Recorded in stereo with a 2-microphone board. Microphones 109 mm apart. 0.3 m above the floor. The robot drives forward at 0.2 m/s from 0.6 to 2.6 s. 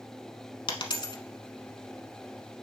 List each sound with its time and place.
0.7 s a dropped coin: 50° left (ahead or behind), 0.8 m; by 1.2 s 45° left (ahead or behind), 0.8 m